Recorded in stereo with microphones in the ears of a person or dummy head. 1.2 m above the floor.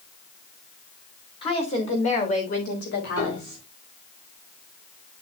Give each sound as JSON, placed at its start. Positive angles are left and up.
{"t": 1.4, "sound": "a woman speaking", "side_deg": 25, "distance_m": 3.0}
{"t": 3.2, "sound": "a piano", "side_deg": 40, "distance_m": 5.0}